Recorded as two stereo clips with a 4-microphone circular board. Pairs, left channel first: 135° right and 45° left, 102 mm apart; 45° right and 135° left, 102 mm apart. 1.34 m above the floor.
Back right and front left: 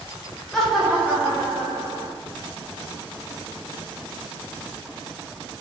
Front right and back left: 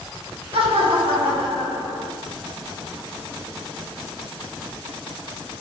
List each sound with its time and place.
0.5 s laughter: 140° left, 0.9 m; by 2.1 s 85° left, 1.2 m